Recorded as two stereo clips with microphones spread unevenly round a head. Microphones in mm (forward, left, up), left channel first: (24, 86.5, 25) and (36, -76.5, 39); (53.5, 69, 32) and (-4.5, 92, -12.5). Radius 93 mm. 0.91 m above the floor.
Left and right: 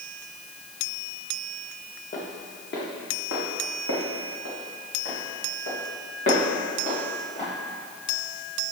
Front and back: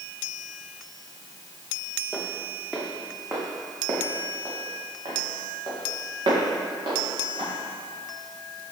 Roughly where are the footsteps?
Ahead left.